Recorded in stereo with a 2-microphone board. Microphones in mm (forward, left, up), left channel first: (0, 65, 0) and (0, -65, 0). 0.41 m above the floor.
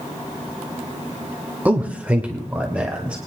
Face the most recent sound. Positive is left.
turn(degrees=-10)  # may be behind; listen again after turning